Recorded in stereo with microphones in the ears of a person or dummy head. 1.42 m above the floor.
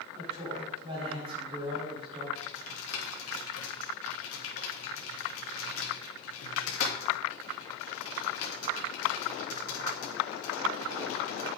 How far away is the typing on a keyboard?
About 3 m.